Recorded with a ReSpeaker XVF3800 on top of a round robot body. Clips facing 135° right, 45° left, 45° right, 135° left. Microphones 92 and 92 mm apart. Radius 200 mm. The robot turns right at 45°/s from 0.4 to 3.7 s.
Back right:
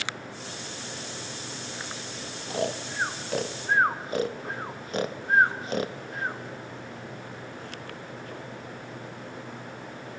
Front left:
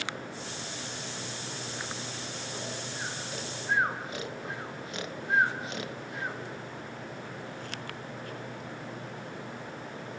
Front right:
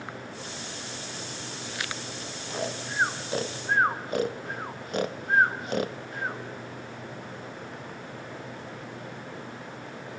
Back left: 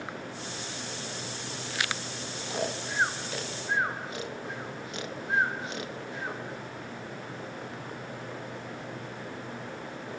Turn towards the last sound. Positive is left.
turn(degrees=-85)